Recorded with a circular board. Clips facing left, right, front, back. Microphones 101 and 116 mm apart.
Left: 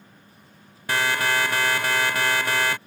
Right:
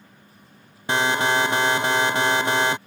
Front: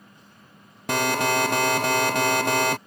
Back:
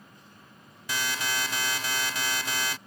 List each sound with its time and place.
0.9 s an alarm: 20° right